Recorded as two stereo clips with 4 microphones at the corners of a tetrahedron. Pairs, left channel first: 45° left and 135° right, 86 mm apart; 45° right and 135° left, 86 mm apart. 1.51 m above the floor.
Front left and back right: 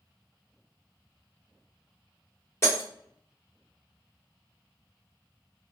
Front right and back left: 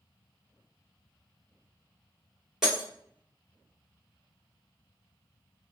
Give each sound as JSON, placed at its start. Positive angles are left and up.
{"t": 2.6, "sound": "breaking glass", "azimuth_deg": 55, "distance_m": 1.3}